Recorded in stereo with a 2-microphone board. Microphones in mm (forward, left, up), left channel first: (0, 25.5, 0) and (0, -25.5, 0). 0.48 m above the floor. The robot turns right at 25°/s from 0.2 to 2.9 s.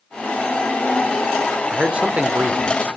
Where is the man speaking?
20° right (ahead or behind), 1.0 m; by 2.9 s 40° right (ahead or behind), 1.0 m.